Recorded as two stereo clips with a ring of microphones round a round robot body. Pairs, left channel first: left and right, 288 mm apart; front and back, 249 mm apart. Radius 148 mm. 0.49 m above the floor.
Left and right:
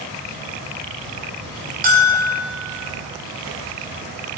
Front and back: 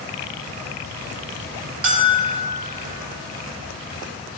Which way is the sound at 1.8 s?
145° right.